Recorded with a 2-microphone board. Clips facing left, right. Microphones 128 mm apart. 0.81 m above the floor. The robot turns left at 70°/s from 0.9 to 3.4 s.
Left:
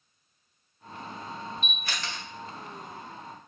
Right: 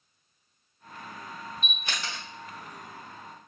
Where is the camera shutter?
40° right (ahead or behind), 1.1 m; by 2.2 s centre (ahead or behind), 1.1 m.